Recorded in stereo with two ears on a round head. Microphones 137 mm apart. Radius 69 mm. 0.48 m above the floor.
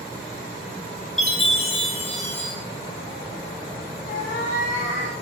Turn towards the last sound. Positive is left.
turn(degrees=55)  # may be behind; listen again after turning